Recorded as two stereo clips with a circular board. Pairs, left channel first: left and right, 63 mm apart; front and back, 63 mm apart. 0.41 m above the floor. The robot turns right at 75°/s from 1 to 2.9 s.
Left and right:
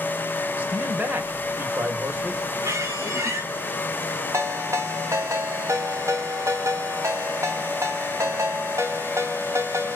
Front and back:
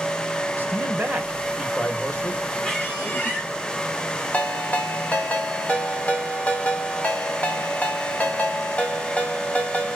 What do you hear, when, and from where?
0.6 s a man speaking: 140° right, 1.8 m; by 2.4 s 35° right, 1.8 m
2.6 s a squeak: 80° right, 4 m; by 3.5 s 60° right, 4 m
4.3 s a ringtone: 65° right, 1.8 m